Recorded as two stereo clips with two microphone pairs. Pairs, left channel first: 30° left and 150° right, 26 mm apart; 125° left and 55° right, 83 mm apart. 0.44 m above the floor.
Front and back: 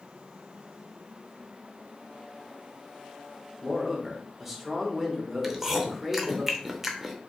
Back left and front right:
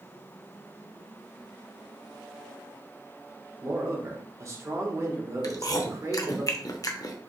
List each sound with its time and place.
3.6 s a man speaking: 70° right, 1.0 m
5.4 s chewing: 135° left, 0.7 m